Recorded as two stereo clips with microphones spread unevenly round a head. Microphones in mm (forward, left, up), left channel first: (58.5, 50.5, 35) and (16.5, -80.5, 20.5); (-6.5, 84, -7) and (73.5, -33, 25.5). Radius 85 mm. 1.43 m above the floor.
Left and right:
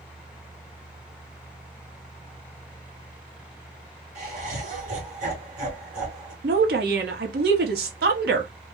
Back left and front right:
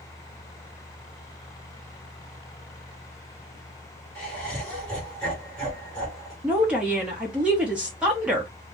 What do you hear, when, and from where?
4.2 s laughter: 150° right, 1.4 m
6.4 s a woman speaking: 135° right, 0.8 m